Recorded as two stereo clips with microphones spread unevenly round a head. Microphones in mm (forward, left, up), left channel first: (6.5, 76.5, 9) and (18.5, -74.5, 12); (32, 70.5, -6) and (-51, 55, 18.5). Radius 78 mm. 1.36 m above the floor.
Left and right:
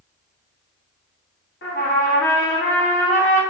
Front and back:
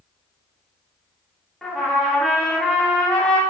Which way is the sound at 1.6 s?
100° left.